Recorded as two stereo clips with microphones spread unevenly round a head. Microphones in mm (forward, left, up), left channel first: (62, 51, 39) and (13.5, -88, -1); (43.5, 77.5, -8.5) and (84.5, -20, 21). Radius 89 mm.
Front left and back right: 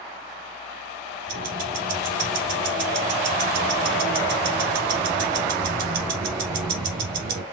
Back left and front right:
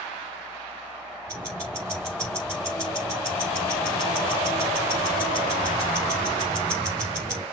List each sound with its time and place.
1.3 s ticking: 145° right, 4 m